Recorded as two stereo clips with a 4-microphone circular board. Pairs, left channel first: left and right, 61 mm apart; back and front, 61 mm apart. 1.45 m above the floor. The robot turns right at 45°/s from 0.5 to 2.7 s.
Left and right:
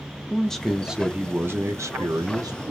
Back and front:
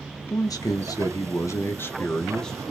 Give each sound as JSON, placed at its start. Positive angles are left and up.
{"t": 0.3, "sound": "a man speaking", "azimuth_deg": 170, "distance_m": 0.6}